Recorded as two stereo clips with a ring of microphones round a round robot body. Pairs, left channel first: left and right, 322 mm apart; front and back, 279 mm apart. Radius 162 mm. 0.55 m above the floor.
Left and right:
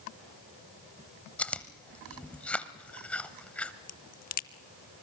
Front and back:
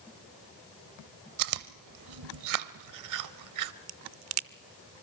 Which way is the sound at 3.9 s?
155° left.